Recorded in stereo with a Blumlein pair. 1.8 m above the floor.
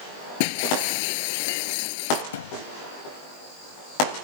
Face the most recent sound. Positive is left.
turn(degrees=60)